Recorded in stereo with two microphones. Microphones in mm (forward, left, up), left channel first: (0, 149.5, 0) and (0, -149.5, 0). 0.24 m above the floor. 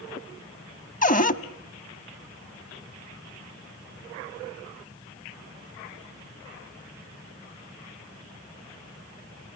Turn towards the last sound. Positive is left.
turn(degrees=30)  # may be behind; listen again after turning